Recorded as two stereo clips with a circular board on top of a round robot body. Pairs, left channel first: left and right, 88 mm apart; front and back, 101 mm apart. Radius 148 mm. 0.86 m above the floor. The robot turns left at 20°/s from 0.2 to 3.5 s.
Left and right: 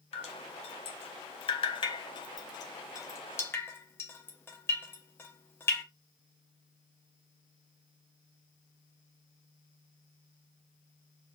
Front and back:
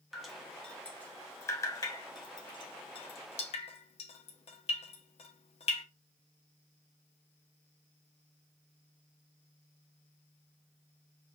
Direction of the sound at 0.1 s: 90° left.